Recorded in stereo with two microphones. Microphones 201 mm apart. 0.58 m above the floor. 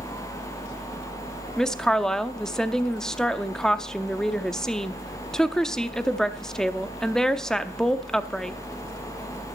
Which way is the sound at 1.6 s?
5° left (ahead or behind).